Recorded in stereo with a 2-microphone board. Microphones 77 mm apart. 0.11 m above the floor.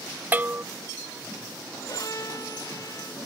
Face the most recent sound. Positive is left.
turn(degrees=40)  # may be behind; listen again after turning